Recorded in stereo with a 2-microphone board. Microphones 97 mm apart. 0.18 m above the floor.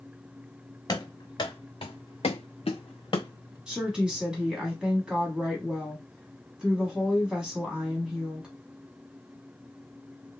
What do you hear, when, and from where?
0.9 s running footsteps: 45° left (ahead or behind), 1.1 m; by 3.6 s 40° left (ahead or behind), 0.8 m
3.7 s a woman speaking: 5° right (ahead or behind), 1.3 m